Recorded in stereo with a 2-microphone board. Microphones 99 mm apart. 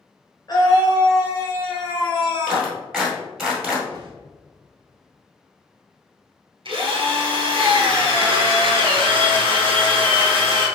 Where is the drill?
55° right (ahead or behind), 1.4 m.